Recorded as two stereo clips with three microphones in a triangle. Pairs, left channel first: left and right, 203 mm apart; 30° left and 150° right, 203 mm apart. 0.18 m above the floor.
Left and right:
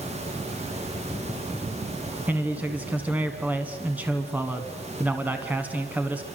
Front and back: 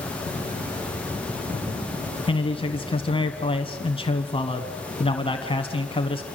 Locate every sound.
2.3 s a man speaking: 15° right, 1.4 m